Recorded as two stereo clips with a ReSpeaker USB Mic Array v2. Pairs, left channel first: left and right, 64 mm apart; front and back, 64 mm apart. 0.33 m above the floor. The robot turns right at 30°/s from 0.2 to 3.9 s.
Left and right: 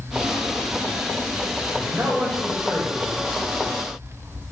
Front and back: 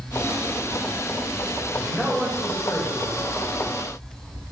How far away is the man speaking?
About 1.9 m.